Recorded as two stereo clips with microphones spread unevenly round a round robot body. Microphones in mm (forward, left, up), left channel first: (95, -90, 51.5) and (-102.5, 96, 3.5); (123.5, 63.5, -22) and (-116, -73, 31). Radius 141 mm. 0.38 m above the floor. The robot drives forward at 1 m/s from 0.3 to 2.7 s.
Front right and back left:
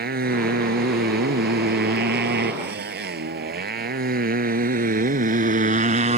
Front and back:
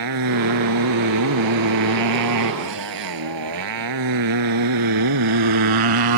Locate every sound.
0.0 s a motorcycle: 165° right; by 6.2 s 155° right